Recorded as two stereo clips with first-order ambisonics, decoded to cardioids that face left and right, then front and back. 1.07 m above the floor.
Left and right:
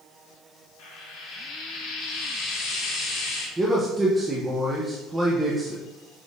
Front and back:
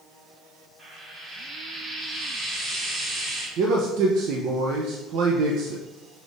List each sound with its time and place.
0.8 s frying: 110° left, 2 m
3.6 s a man speaking: 165° right, 0.6 m